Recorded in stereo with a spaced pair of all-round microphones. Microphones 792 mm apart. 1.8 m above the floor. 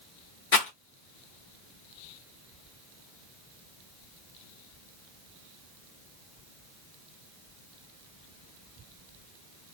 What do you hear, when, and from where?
0.5 s a rattle: 65° left (ahead or behind), 1.1 m